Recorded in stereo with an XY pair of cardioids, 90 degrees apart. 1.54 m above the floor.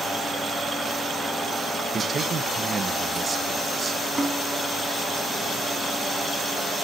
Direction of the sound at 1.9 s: 45° right.